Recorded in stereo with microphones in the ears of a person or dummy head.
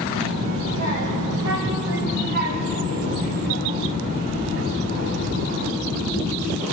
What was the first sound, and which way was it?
A child speaking, 80° right.